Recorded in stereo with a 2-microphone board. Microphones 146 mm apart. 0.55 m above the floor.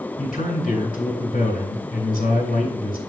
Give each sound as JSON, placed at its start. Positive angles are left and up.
{"t": 0.2, "sound": "a man speaking", "side_deg": 65, "distance_m": 3.0}